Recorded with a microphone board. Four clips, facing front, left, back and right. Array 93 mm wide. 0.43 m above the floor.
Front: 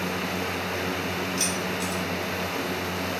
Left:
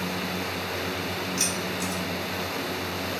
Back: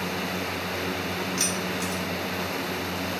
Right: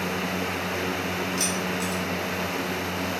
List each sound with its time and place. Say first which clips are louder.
1.4 s keys jangling: right 2 dB, front 1 dB; 175° left, 0.9 m